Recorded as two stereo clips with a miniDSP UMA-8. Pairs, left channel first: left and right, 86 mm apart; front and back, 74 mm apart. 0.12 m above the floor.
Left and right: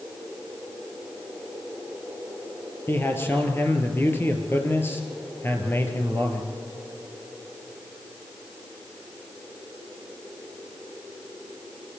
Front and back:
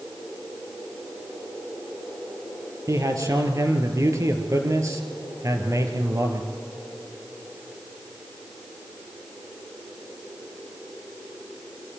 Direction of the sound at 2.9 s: 150° left.